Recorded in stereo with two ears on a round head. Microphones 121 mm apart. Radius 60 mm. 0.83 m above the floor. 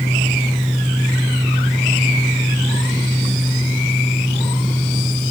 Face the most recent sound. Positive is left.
No sound to turn to.